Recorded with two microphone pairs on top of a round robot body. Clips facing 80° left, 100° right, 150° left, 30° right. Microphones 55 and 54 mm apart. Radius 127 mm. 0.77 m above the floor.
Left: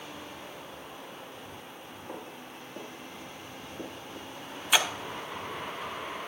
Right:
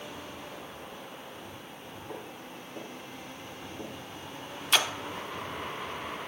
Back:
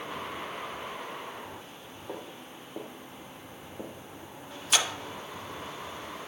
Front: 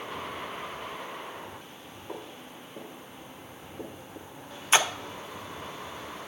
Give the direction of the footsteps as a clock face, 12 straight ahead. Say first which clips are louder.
Even, even; 6 o'clock.